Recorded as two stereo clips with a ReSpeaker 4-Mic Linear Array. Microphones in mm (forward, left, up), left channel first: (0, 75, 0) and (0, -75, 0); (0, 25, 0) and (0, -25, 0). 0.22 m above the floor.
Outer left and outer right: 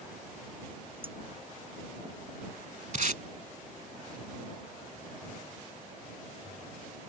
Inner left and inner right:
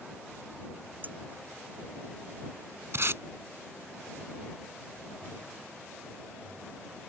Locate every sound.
1.0 s dishes clattering: 40° right (ahead or behind)
2.9 s tape being pulled: 60° right (ahead or behind)